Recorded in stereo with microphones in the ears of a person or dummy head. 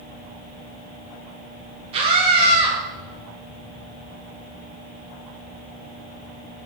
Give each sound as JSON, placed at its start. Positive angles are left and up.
{"t": 1.9, "sound": "a scream", "side_deg": -25, "distance_m": 1.0}